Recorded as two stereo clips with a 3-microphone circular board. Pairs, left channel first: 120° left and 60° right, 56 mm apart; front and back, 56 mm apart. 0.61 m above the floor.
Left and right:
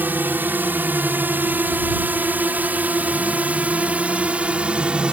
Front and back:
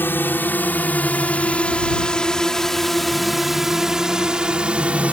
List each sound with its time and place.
0.0 s a drone: 25° right; by 5.1 s 125° right